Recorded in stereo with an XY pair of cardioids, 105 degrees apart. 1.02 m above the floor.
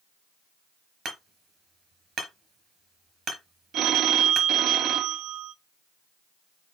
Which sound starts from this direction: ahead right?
Hammering, at 1.1 s.